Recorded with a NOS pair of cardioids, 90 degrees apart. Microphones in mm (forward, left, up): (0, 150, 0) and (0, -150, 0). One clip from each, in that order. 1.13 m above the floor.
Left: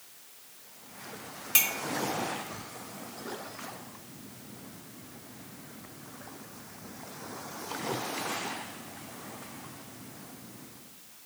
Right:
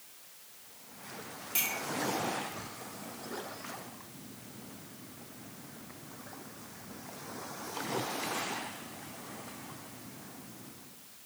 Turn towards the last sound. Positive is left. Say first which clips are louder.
# left 6 dB
turn(degrees=60)